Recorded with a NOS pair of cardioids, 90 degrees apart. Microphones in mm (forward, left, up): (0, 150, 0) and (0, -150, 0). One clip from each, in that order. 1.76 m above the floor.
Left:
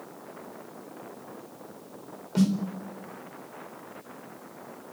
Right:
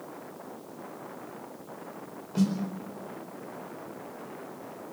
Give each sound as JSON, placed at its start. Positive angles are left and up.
{"t": 2.4, "sound": "a snare drum", "azimuth_deg": 35, "distance_m": 4.0}